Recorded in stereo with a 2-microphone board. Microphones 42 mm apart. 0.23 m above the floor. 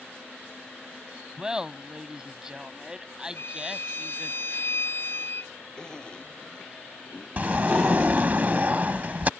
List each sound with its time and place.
1.4 s laughter: 15° right (ahead or behind)
3.4 s a violin: 55° left (ahead or behind)
5.8 s a zipper: 20° left (ahead or behind)
7.4 s a sliding door: 40° right (ahead or behind)